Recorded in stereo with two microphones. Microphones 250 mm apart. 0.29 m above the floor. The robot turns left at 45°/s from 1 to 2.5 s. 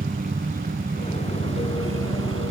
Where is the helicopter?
40° right; by 2.5 s 105° right.